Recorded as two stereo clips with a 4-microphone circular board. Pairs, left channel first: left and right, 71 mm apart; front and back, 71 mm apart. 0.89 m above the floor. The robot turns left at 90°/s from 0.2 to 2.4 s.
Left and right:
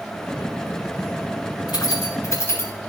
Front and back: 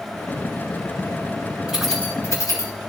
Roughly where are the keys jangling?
Left.